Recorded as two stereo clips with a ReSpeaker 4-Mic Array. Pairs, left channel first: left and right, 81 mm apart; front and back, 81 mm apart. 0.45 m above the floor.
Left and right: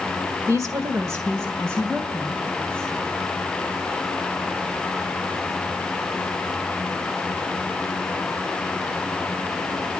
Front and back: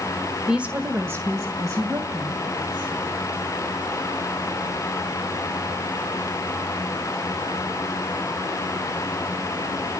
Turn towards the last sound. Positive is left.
turn(degrees=-150)